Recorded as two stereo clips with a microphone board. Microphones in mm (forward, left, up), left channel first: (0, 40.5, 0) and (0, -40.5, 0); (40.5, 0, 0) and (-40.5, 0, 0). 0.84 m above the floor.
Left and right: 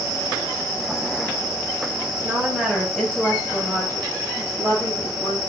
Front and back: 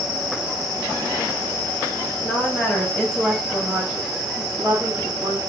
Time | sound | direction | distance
2.1 | a woman speaking | 50° right | 0.8 m